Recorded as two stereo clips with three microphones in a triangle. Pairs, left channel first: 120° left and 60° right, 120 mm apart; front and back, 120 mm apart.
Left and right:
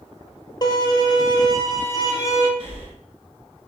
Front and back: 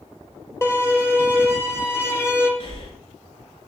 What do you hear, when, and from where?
0.6 s a violin: 70° left, 0.7 m
2.6 s breathing: 35° right, 1.0 m